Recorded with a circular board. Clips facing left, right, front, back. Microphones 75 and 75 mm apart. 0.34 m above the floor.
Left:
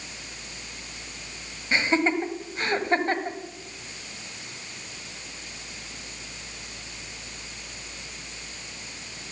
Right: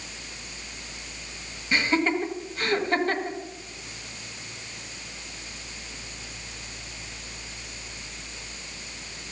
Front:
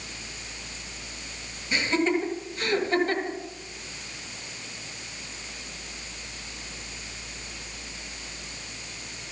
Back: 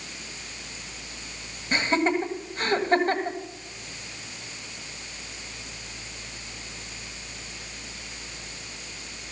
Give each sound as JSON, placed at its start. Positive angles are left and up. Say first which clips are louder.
{"t": 1.7, "sound": "laughter", "louder": "left 1 dB, back 1 dB", "azimuth_deg": 145, "distance_m": 1.6}